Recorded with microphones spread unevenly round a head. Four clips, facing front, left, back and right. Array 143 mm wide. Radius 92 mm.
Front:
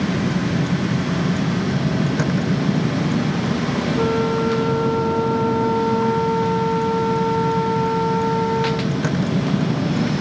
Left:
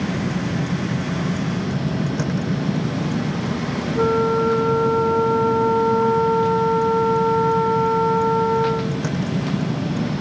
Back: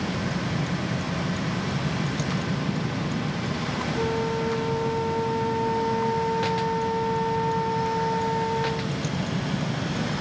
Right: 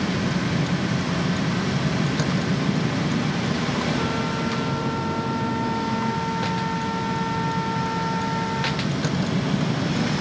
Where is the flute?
105° left.